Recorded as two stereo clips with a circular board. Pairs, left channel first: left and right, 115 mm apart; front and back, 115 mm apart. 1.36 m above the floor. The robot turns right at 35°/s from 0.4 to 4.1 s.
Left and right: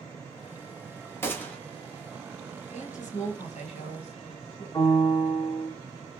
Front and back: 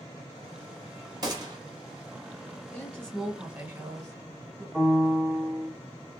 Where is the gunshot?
150° left, 1.0 m; by 1.6 s 160° left, 1.0 m.